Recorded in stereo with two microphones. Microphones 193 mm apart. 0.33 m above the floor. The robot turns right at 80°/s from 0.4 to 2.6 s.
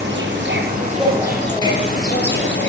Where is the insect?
75° right, 5 m; by 2.7 s 100° left, 5 m.